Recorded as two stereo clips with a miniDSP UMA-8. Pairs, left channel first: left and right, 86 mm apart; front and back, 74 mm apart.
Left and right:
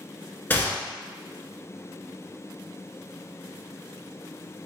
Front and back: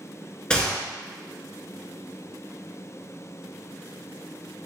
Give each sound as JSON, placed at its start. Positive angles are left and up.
{"t": 0.5, "sound": "a gunshot", "azimuth_deg": 65, "distance_m": 0.7}